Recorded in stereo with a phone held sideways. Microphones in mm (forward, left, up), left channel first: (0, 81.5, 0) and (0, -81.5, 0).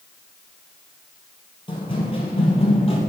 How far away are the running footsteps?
About 1.6 m.